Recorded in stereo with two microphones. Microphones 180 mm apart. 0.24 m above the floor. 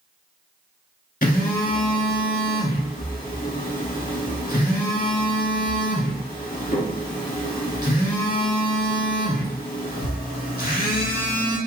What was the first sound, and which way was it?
A phone buzzing, 60° left (ahead or behind).